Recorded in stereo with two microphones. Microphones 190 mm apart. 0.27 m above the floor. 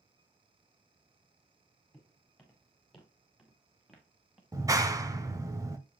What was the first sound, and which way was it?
Footsteps, 5° left (ahead or behind).